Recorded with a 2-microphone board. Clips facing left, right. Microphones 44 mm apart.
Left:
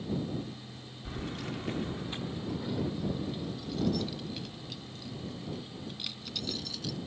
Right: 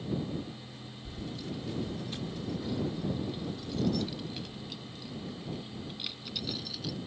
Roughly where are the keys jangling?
Left.